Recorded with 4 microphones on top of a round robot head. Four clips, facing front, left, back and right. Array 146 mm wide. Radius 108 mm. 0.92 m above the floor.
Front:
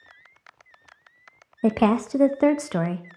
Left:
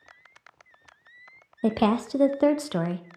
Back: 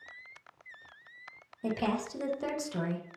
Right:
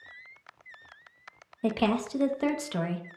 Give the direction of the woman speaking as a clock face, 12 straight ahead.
11 o'clock.